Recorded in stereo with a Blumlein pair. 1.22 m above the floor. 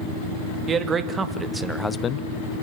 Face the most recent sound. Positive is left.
turn(degrees=50)